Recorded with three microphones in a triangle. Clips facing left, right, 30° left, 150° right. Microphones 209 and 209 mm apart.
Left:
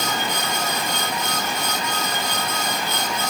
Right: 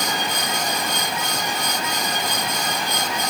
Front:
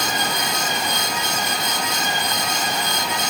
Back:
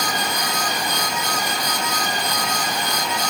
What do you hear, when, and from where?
Only background noise.